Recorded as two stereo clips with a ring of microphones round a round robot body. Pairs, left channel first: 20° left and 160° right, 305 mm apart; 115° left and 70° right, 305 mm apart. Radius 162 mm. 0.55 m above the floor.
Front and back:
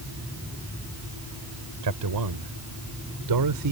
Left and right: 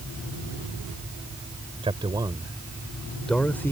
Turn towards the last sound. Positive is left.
turn(degrees=-165)